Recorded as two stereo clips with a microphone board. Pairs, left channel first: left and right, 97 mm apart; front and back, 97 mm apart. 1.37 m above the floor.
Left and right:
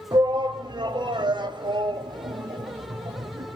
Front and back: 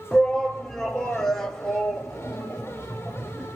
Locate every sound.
0.1 s a shout: 85° right, 0.7 m